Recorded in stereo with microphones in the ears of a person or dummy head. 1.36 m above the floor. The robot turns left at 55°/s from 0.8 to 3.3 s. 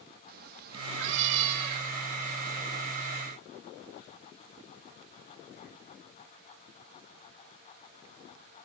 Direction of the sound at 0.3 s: 65° right.